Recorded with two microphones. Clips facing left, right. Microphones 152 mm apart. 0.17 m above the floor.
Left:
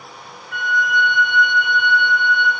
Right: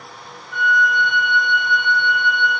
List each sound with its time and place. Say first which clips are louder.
0.5 s a flute: right 2 dB; 65° left (ahead or behind), 3.5 m